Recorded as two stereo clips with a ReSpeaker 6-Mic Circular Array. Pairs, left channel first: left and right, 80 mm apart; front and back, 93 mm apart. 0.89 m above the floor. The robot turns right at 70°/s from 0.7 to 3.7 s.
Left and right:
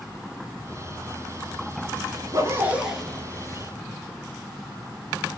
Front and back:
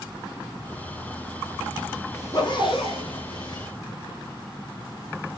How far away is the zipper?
About 2.5 m.